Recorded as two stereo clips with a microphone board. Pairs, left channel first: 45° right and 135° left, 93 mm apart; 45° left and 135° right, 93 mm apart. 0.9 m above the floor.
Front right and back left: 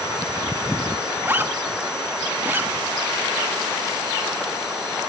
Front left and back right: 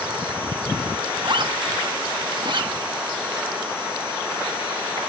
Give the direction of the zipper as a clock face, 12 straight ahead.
5 o'clock.